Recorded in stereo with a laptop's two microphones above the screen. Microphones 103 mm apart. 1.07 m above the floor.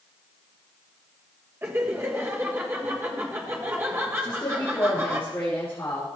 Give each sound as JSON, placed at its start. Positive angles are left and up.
{"t": 1.6, "sound": "laughter", "side_deg": -25, "distance_m": 1.3}
{"t": 4.2, "sound": "a woman speaking", "side_deg": 25, "distance_m": 3.0}